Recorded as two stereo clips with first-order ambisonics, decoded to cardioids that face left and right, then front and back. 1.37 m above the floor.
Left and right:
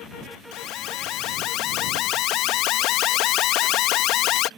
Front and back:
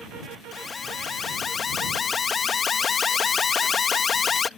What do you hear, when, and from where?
0.5 s an alarm: 65° left